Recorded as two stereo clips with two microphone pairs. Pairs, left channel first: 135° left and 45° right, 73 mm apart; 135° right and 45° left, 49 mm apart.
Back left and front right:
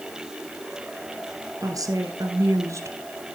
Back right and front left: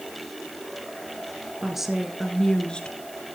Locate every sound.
1.6 s a woman speaking: 35° right, 2 m; by 3.0 s 80° right, 1.8 m